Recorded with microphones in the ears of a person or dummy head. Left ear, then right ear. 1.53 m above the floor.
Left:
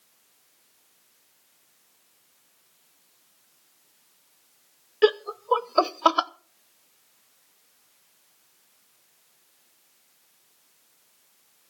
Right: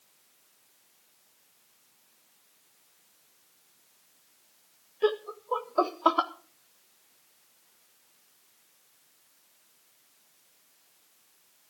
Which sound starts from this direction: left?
Laughter, at 5.0 s.